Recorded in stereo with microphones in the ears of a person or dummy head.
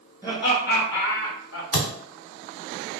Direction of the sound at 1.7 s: 60° left (ahead or behind).